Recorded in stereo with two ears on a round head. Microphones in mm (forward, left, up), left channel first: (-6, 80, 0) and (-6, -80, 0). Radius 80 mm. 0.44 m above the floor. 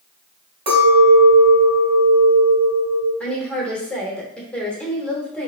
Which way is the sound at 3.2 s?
5° left (ahead or behind).